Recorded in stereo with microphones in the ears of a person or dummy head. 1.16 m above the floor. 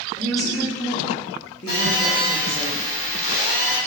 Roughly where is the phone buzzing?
Left.